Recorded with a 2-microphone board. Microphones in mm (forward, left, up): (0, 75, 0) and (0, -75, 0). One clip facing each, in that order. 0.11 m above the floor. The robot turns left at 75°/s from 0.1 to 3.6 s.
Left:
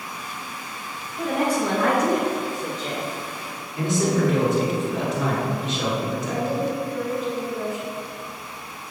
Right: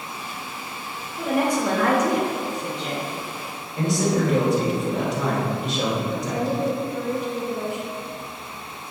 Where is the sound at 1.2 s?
165° right, 1.6 m; by 3.1 s 45° left, 1.6 m.